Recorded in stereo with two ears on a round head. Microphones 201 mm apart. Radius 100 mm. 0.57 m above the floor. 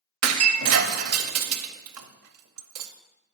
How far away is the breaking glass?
About 0.7 m.